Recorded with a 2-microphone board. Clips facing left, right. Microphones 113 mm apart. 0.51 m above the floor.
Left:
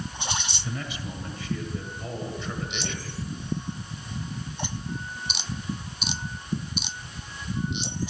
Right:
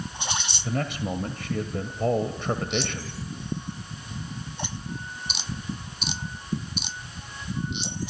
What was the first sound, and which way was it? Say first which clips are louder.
A man speaking: right 11 dB; 60° right (ahead or behind).